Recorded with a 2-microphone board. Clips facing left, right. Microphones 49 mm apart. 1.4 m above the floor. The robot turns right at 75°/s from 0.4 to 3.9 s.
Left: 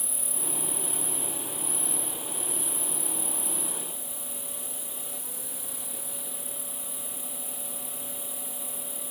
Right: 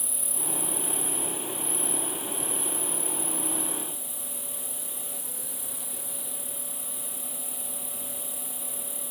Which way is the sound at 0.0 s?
70° left.